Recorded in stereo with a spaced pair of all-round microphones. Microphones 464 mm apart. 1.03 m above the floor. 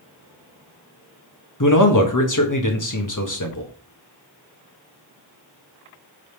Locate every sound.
1.6 s a man speaking: 45° left (ahead or behind), 1.4 m